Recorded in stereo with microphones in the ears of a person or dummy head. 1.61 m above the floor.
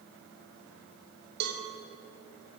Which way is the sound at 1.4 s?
55° right (ahead or behind).